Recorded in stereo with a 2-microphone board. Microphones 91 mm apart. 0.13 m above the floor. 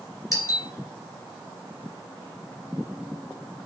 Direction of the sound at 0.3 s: 35° left (ahead or behind).